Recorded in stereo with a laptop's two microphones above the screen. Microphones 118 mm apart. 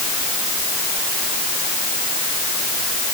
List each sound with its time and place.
Only background noise.